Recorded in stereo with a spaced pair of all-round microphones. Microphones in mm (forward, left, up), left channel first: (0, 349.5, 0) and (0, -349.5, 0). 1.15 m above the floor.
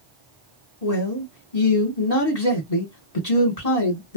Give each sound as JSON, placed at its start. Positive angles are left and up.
{"t": 0.8, "sound": "a man speaking", "side_deg": 60, "distance_m": 1.6}